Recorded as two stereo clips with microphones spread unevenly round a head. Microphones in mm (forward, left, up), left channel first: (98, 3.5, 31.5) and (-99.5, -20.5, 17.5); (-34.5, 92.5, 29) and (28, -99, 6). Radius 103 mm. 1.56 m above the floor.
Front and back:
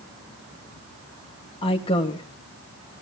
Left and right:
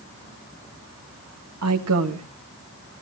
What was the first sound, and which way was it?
A woman speaking, 60° right.